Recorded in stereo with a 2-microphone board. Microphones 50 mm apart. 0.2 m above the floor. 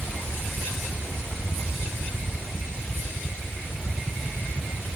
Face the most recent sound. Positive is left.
No sound to turn to.